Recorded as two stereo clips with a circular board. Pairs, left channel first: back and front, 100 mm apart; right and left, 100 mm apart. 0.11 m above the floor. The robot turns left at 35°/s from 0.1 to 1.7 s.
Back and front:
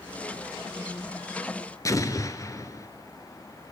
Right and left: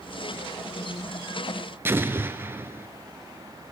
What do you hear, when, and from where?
1.9 s an explosion: 145° left, 1.6 m